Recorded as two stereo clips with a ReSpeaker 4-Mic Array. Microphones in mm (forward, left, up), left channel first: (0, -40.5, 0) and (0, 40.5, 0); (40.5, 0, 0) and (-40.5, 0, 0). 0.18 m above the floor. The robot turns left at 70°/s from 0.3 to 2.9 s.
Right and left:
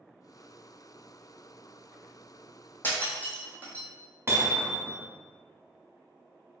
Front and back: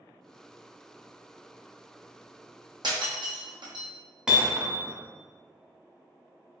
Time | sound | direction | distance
2.8 | breaking glass | 155° right | 1.1 m
4.3 | hammering | 105° left | 1.0 m